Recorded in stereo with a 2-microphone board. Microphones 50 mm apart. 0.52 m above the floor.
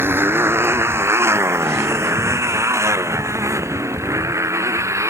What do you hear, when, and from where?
0.0 s a motorcycle: 45° right (ahead or behind); by 5.1 s 70° right (ahead or behind)